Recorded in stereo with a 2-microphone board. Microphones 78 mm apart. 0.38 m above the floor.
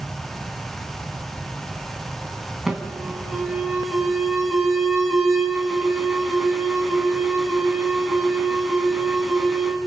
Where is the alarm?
5° right (ahead or behind), 3.5 m.